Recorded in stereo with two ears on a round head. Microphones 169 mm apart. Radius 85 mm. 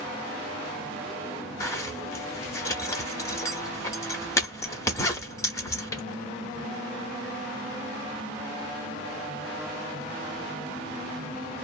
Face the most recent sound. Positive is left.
turn(degrees=15)  # may be behind; listen again after turning